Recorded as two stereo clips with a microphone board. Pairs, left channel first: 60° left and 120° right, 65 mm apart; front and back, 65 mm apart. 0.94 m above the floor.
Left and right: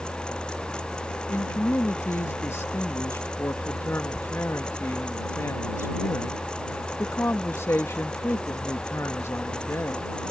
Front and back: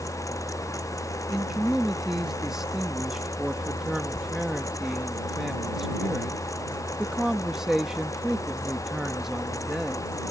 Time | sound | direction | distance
1.3 | a man speaking | 100° left | ?